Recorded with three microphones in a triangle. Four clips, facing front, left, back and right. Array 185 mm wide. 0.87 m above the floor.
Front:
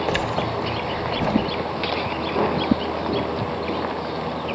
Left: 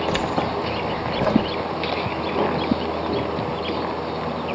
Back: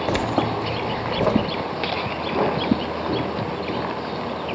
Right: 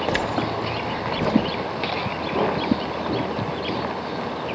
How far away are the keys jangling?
About 0.9 m.